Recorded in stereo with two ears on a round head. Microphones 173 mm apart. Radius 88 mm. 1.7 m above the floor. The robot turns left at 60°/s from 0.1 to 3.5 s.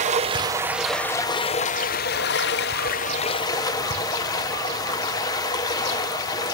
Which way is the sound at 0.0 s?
135° right.